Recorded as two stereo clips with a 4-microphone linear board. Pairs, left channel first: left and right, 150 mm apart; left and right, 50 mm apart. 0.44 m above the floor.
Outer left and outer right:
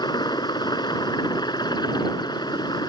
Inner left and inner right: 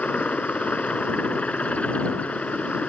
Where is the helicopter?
30° left (ahead or behind).